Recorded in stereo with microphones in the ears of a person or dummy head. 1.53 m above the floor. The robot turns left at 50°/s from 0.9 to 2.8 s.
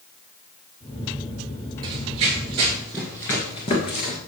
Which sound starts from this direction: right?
Running footsteps, at 1.8 s.